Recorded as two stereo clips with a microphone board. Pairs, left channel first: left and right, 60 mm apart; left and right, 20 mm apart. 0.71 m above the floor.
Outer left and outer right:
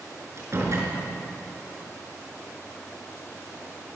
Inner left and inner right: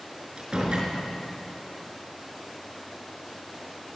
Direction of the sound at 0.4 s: 50° right (ahead or behind).